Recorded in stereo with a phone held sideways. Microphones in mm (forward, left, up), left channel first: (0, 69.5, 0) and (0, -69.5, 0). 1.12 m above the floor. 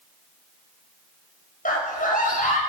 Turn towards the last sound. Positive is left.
turn(degrees=75)  # may be behind; listen again after turning